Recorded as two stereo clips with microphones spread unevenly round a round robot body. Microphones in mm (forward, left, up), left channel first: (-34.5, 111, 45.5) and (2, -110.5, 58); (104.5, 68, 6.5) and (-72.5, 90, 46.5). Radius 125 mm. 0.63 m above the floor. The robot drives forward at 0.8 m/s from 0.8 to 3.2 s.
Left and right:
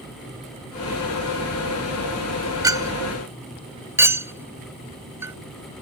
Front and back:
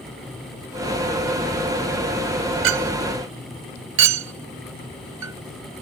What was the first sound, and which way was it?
A clink, 155° right.